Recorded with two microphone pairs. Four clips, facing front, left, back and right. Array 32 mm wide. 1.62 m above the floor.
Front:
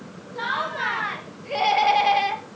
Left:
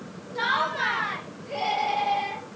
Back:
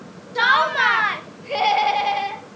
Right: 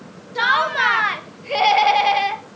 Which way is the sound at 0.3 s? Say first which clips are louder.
Right 8 dB, back 10 dB; 140° right.